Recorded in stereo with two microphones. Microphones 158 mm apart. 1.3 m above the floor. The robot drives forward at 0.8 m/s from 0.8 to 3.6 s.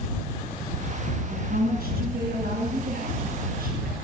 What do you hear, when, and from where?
1.3 s a woman speaking: 80° right, 8.5 m; by 4.0 s 65° right (ahead or behind), 9 m